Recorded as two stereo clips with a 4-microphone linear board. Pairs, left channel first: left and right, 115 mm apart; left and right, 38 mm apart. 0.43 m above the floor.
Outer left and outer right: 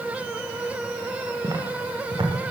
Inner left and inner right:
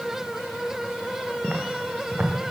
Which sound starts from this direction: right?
Footsteps, at 1.4 s.